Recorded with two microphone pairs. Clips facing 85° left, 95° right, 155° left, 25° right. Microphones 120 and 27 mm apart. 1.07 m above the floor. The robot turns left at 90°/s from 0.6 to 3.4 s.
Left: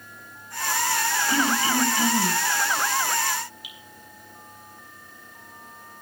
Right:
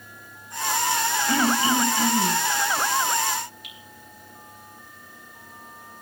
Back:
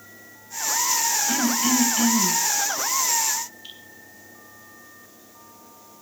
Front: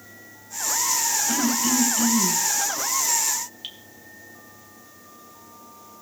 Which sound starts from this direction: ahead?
Dripping, at 3.6 s.